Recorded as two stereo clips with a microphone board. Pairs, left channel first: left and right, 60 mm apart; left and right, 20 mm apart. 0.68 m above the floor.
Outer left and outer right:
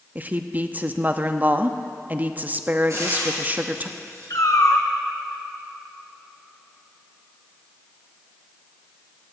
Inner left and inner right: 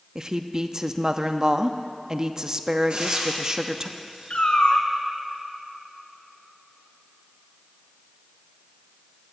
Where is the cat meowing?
75° left (ahead or behind), 1.5 m.